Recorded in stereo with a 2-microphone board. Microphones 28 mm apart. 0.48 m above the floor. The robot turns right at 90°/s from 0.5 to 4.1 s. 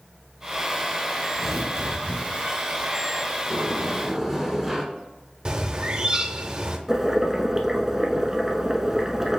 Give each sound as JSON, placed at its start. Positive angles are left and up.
{"t": 1.4, "sound": "tearing paper", "azimuth_deg": 180, "distance_m": 1.6}
{"t": 3.5, "sound": "a sliding door", "azimuth_deg": 135, "distance_m": 1.2}
{"t": 5.5, "sound": "a bird", "side_deg": -35, "distance_m": 0.5}
{"t": 6.9, "sound": "boiling", "side_deg": -15, "distance_m": 0.8}